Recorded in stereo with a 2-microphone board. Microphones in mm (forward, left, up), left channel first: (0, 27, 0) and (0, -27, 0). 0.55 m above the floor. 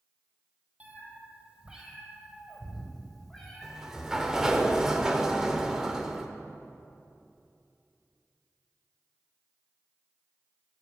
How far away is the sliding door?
About 0.7 m.